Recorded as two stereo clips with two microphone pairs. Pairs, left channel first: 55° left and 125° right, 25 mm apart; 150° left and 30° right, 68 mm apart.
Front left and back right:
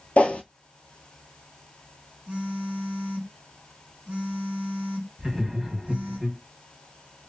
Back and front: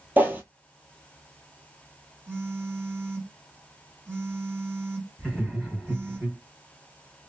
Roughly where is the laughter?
Behind right.